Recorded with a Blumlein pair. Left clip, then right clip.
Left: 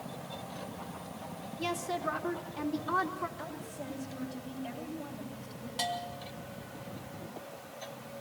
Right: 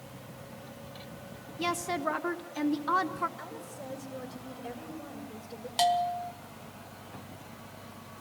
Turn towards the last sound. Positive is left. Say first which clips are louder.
# right 9 dB
turn(degrees=-60)